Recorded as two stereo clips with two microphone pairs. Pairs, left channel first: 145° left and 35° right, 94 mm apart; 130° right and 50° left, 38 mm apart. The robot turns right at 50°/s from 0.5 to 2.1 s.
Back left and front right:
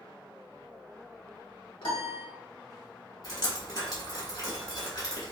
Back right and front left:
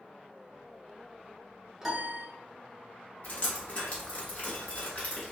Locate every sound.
1.8 s a piano: 130° left, 0.7 m; by 2.3 s 145° left, 0.7 m
3.2 s dripping: 175° right, 1.1 m